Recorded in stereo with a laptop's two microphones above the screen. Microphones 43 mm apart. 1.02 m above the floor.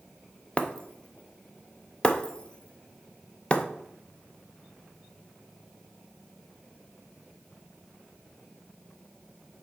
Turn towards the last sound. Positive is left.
turn(degrees=25)  # may be behind; listen again after turning